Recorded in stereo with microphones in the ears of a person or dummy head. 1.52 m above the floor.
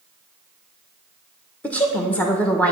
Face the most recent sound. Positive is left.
turn(degrees=10)  # may be behind; listen again after turning